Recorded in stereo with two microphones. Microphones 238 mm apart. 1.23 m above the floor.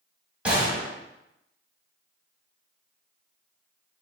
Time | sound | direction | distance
0.5 | a gunshot | 5° right (ahead or behind) | 1.7 m